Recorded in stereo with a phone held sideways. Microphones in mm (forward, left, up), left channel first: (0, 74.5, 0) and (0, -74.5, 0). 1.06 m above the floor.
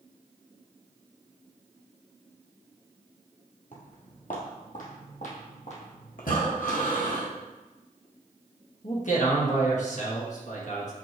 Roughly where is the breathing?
Left.